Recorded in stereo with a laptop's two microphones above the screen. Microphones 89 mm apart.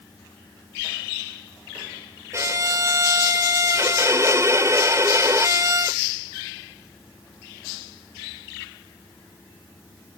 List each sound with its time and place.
2.3 s a violin: 35° right (ahead or behind)